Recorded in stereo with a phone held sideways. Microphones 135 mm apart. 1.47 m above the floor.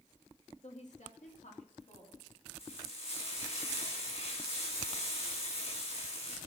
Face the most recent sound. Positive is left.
turn(degrees=50)  # may be behind; listen again after turning